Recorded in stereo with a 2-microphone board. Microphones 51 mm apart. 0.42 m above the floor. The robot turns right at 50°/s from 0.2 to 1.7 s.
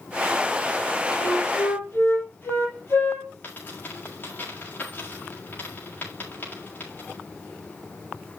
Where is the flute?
15° left (ahead or behind), 5.5 m; by 3.3 s 45° left (ahead or behind), 5.5 m.